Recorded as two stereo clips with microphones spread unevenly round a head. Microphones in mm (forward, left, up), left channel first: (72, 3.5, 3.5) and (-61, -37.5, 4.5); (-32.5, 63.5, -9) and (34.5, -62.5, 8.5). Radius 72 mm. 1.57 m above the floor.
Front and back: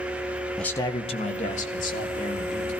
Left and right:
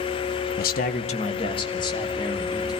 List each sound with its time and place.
0.6 s a man speaking: 105° left, 0.7 m; by 2.7 s 50° left, 3.5 m